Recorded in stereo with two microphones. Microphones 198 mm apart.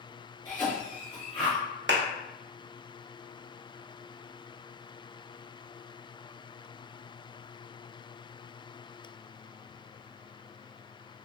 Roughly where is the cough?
Centre.